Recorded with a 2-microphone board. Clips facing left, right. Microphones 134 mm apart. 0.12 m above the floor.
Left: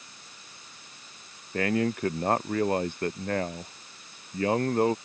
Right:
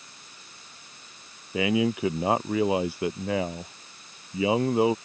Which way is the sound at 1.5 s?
5° right (ahead or behind).